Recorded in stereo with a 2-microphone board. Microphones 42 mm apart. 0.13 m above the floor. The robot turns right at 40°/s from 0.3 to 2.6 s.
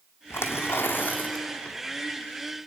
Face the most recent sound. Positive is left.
turn(degrees=-170)